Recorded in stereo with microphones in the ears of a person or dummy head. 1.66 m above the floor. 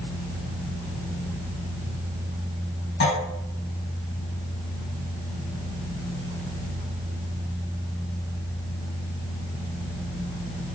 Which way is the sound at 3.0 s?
60° left (ahead or behind).